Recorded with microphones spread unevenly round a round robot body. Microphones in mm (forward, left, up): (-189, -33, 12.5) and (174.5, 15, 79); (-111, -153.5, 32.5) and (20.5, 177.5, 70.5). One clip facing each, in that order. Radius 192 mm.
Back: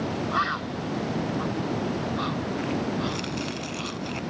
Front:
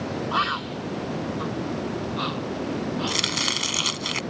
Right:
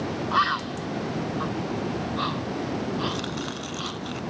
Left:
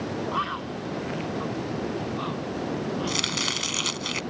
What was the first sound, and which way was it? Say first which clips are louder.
A bird: even, right 1 dB; 65° right.